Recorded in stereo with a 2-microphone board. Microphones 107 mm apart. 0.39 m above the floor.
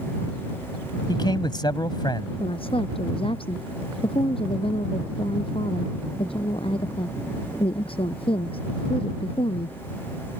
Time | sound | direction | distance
1.1 | a man speaking | 45° left (ahead or behind) | ?
2.4 | a woman speaking | 60° left (ahead or behind) | ?